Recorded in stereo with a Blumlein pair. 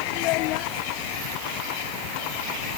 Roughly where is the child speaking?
Ahead left.